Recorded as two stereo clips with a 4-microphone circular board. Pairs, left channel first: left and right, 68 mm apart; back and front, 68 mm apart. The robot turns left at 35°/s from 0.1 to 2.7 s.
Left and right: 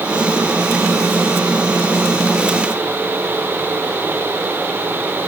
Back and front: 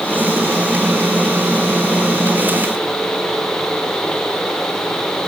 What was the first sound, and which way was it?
Only background noise.